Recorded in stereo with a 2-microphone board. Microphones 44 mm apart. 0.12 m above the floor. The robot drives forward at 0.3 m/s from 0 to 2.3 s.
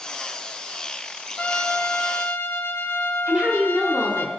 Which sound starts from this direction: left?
A trumpet, at 1.4 s.